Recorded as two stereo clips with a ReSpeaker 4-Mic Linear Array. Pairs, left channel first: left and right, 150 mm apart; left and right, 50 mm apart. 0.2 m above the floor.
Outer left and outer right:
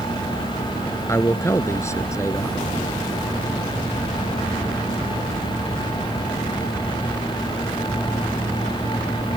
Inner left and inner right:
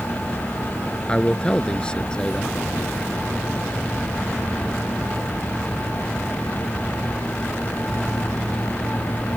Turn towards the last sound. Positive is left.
turn(degrees=20)  # may be behind; listen again after turning